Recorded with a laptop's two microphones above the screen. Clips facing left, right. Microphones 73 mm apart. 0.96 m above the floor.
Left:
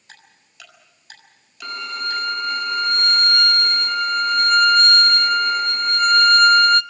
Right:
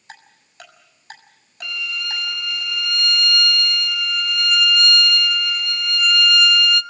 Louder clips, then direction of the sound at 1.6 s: Left 2 dB; 40° left (ahead or behind).